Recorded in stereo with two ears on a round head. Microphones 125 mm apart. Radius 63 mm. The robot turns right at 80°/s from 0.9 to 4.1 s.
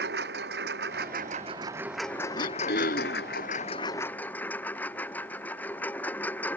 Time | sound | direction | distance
0.0 | a lawn mower | 90° right | ?
2.4 | throat clearing | 65° left | ?